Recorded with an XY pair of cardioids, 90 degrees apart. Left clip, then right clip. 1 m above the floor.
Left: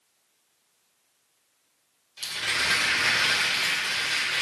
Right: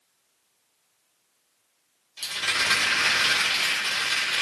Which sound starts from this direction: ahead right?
A rattle, at 2.2 s.